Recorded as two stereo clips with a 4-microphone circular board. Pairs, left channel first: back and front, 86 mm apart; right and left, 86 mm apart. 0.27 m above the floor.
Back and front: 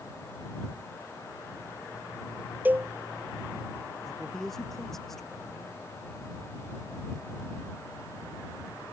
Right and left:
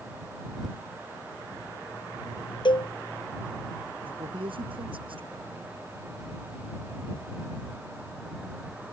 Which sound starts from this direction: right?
A cowbell, at 2.6 s.